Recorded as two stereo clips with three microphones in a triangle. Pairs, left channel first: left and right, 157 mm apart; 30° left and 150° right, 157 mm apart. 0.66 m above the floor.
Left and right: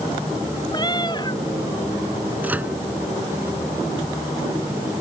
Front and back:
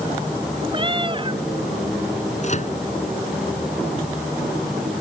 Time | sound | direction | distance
0.7 | a cat meowing | 155° left | ?
2.4 | a microwave | 10° right | ?